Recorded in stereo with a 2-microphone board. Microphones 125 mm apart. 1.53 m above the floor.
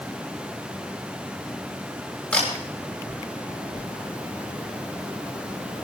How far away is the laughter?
I don't hear laughter.